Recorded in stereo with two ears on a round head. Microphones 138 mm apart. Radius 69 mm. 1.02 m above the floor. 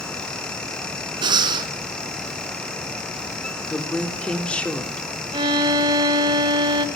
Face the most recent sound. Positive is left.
turn(degrees=-30)  # may be behind; listen again after turning